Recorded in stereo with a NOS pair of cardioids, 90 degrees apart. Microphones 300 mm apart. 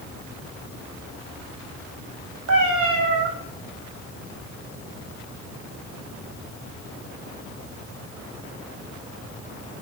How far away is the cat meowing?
About 3.5 m.